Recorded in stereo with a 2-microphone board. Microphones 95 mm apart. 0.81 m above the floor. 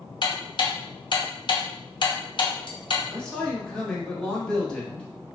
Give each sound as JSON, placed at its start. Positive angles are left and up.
{"t": 0.2, "sound": "ticking", "side_deg": 55, "distance_m": 0.6}
{"t": 3.1, "sound": "a man speaking", "side_deg": 10, "distance_m": 0.9}